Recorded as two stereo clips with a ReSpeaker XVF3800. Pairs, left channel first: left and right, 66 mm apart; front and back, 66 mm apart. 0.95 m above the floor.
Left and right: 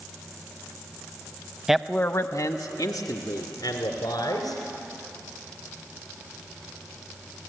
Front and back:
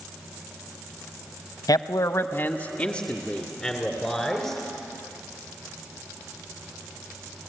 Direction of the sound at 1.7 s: 5° right.